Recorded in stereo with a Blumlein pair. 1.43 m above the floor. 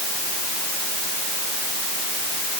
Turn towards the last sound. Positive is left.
No sound to turn to.